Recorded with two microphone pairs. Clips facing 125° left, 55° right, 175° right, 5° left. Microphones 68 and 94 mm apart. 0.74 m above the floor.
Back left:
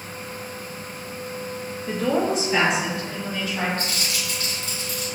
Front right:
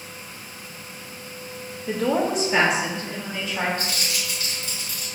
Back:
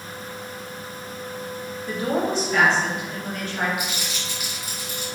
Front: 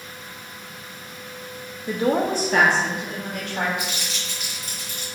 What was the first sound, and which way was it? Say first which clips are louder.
A woman speaking: even, front 3 dB; 35° left.